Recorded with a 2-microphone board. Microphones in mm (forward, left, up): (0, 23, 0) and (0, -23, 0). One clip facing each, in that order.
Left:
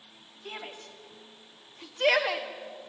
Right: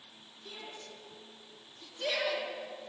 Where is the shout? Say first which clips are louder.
Left 5 dB; 60° left (ahead or behind), 2.5 m; by 2.5 s 65° left (ahead or behind), 1.8 m.